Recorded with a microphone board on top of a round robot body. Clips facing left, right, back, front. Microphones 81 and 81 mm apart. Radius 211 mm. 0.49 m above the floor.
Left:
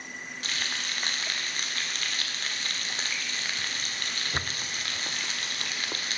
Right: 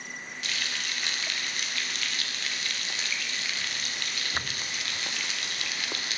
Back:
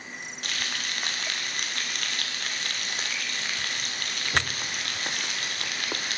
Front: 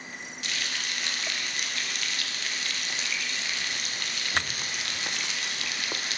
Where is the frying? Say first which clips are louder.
Even, back 1 dB; 140° left, 1.5 m.